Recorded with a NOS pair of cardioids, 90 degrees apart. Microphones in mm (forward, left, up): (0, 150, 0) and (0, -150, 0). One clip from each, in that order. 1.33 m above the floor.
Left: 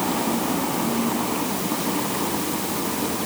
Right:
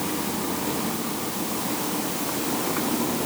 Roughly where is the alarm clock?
No alarm clock in this recording.